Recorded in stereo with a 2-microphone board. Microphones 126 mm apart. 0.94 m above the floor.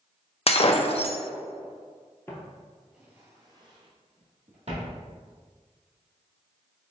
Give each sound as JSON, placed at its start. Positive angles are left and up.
{"t": 0.5, "sound": "breaking glass", "side_deg": 50, "distance_m": 0.5}
{"t": 2.3, "sound": "footsteps", "side_deg": 20, "distance_m": 1.1}